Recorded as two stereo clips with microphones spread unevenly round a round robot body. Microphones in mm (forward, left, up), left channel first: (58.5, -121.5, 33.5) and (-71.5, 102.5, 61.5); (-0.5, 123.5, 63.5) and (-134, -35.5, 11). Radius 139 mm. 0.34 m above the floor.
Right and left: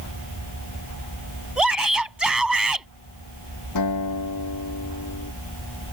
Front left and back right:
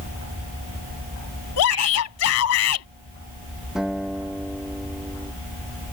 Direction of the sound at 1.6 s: 30° left.